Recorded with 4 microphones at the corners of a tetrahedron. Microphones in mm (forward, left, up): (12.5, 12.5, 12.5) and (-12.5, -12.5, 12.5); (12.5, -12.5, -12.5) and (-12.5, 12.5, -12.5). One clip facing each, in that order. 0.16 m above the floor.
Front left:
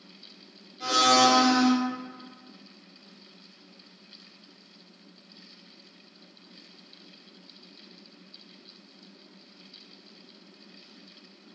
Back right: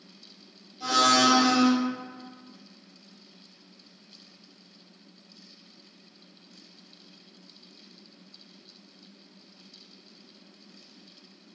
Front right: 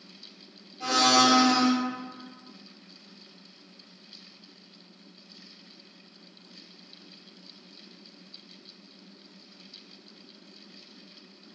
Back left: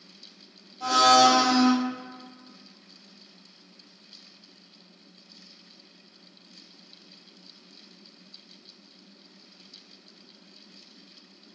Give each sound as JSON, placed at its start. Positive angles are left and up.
{"t": 0.8, "sound": "a blender", "azimuth_deg": 5, "distance_m": 1.6}